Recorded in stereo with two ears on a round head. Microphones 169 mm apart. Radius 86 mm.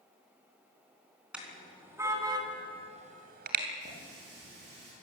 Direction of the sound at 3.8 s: 60° right (ahead or behind).